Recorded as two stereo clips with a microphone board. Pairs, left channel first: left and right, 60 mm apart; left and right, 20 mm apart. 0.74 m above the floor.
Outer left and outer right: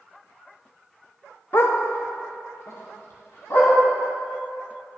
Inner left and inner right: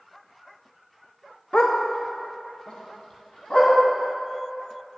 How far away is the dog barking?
About 0.6 m.